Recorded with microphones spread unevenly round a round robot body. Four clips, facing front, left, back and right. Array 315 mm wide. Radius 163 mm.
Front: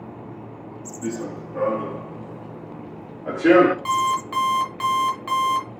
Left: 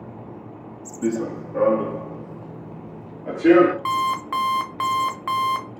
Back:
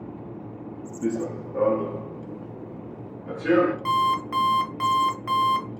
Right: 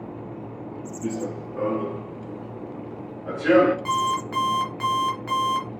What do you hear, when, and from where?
1.0 s running footsteps: 85° left, 1.3 m; by 3.8 s 20° left, 1.6 m
3.9 s an alarm clock: 135° left, 0.9 m